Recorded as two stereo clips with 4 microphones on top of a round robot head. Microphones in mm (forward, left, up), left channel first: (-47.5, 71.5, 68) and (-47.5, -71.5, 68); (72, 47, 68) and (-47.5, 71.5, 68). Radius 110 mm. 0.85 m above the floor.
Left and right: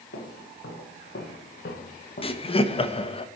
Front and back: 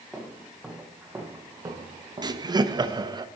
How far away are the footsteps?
About 2.5 m.